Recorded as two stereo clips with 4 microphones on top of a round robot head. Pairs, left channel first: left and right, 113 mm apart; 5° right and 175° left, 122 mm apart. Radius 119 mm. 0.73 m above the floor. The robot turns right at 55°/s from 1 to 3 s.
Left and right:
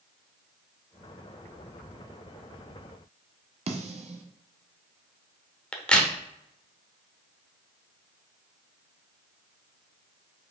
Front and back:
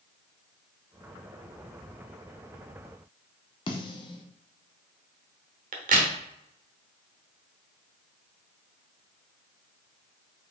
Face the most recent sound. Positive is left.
turn(degrees=170)